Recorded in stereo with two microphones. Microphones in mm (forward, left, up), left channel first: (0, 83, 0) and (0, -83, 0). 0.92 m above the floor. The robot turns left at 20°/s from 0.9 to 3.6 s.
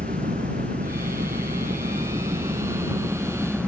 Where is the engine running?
115° right; by 3.7 s 170° right.